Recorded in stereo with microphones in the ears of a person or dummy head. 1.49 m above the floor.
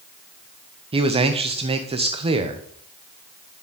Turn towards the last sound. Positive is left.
turn(degrees=-25)  # may be behind; listen again after turning